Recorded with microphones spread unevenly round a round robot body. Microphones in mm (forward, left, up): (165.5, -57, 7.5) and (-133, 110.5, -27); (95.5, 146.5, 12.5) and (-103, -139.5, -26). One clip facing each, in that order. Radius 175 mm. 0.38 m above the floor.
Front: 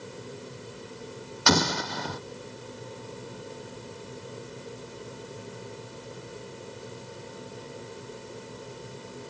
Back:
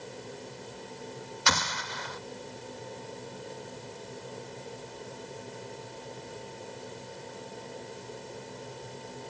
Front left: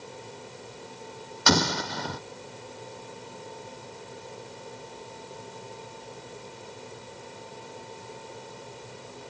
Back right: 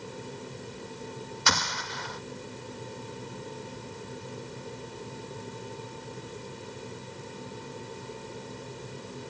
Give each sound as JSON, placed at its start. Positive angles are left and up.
{"t": 1.5, "sound": "an explosion", "azimuth_deg": 10}